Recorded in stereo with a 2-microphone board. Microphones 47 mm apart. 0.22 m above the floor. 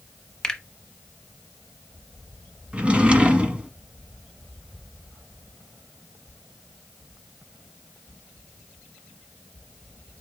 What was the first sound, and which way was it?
A finger snap, 15° left (ahead or behind).